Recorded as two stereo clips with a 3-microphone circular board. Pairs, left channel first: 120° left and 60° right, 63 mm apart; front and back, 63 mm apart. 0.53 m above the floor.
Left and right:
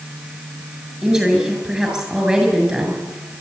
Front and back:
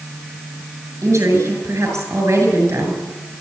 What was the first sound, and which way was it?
A woman speaking, 135° right.